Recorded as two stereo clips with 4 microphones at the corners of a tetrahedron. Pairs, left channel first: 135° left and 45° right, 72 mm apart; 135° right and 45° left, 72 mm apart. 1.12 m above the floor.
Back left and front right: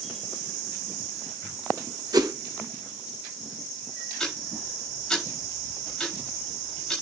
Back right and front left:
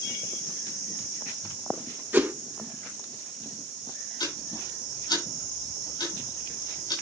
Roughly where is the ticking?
Behind right.